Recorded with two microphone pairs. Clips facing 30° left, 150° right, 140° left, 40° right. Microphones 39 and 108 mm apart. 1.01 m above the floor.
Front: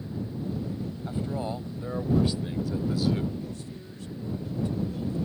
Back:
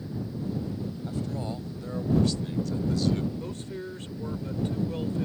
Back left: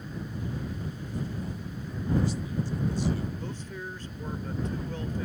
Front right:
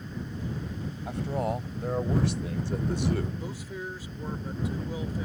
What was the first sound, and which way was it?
A man speaking, 40° right.